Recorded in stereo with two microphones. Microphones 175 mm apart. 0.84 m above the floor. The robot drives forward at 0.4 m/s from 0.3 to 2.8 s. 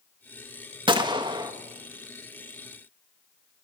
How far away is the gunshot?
About 1.0 m.